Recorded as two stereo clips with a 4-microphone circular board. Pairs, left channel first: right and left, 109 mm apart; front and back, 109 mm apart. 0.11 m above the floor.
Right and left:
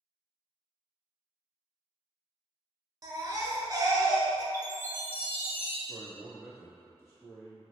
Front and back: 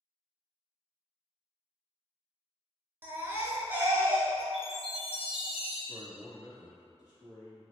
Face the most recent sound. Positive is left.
turn(degrees=-35)